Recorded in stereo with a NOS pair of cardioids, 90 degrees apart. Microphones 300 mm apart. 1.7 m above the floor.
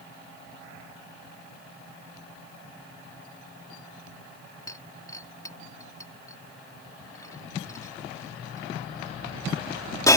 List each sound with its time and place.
4.7 s breaking glass: 10° left